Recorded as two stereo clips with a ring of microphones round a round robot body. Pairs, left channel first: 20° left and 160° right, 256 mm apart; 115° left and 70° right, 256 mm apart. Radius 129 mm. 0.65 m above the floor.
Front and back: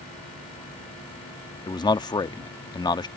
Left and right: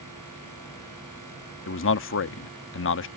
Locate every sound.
1.7 s a man speaking: 95° left